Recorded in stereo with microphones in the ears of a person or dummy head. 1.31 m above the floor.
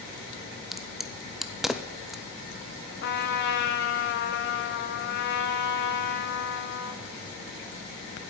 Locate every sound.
0.7 s a crack: centre (ahead or behind), 0.8 m
3.0 s a trumpet: 65° left (ahead or behind), 1.3 m